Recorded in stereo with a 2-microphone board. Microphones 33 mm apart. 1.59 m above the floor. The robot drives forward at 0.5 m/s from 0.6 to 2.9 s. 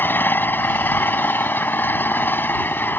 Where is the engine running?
85° left.